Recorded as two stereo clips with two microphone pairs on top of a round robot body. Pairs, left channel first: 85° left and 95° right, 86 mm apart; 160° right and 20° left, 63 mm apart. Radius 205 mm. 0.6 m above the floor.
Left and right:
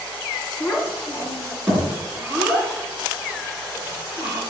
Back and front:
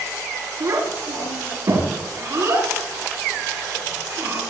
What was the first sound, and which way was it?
A child speaking, 15° right.